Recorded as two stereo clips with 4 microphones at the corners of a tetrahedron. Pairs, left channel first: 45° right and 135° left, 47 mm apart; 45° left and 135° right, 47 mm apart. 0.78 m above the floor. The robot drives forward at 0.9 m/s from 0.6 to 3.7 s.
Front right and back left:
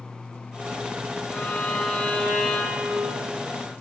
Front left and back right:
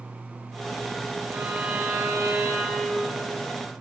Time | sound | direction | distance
1.3 | a violin | 95° right | 2.5 m